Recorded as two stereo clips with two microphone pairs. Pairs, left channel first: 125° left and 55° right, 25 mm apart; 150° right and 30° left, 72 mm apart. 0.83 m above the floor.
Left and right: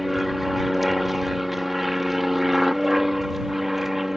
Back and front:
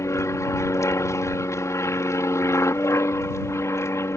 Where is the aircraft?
140° right; by 4.2 s 135° right.